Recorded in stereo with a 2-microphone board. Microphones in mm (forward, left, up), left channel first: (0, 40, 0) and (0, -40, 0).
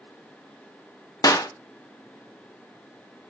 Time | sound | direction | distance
1.2 | a clap | 50° left (ahead or behind) | 1.1 m